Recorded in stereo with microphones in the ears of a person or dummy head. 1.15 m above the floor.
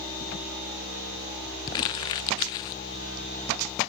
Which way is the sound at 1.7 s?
20° left (ahead or behind).